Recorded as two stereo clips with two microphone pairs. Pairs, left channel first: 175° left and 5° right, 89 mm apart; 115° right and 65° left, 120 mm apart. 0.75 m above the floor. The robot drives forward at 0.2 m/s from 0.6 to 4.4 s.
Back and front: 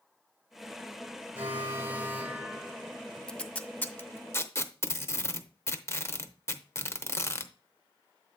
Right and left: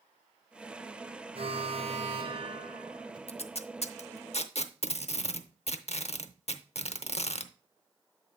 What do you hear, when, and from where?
1.4 s an alarm: 55° left, 0.9 m; by 3.2 s 85° left, 0.9 m
3.3 s tape being pulled: 105° right, 0.6 m; by 7.5 s 125° right, 0.7 m